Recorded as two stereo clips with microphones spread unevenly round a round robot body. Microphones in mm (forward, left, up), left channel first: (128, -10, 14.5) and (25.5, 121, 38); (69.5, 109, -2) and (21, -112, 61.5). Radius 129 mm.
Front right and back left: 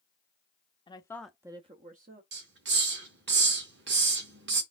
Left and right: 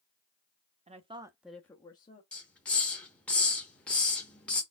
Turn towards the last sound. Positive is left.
turn(degrees=160)